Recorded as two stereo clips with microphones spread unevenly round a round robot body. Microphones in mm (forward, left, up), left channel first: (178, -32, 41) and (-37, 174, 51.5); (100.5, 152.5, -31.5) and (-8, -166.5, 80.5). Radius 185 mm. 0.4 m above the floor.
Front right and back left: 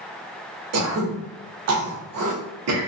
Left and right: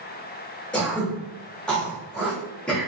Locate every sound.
0.7 s throat clearing: 140° left, 0.7 m